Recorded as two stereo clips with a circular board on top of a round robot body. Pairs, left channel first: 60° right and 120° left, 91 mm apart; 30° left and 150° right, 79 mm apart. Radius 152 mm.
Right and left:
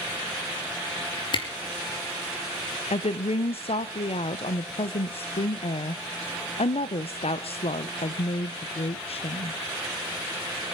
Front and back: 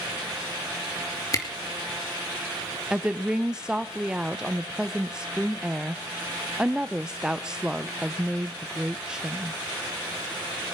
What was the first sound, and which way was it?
A camera shutter, 20° right.